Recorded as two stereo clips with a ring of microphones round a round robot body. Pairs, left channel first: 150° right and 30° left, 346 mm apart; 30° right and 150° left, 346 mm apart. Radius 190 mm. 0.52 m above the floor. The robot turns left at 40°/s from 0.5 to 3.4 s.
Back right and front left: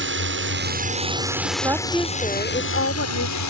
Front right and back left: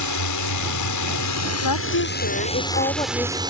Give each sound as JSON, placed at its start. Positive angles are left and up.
{"t": 0.0, "sound": "a drone", "azimuth_deg": -20}
{"t": 1.6, "sound": "a woman speaking", "azimuth_deg": -50}